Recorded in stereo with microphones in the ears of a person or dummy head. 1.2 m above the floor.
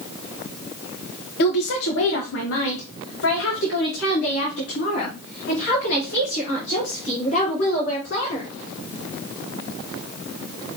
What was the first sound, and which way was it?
A woman speaking, 50° left (ahead or behind).